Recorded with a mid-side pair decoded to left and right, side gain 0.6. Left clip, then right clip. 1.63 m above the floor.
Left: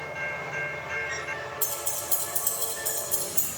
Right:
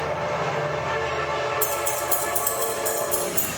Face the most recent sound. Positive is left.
turn(degrees=-5)